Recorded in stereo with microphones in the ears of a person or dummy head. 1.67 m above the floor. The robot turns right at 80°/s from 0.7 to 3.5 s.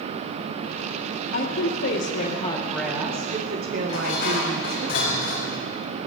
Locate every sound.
1.3 s a woman speaking: 60° left, 2 m; by 4.9 s 125° right, 2 m
3.9 s dishes clattering: 60° left (ahead or behind), 4 m